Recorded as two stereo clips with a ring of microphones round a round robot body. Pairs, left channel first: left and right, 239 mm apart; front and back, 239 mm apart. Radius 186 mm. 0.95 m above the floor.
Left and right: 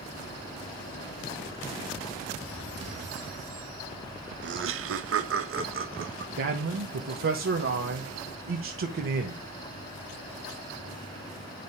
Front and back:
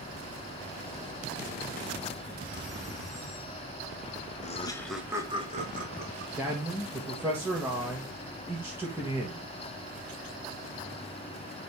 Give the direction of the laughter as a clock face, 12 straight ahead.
2 o'clock.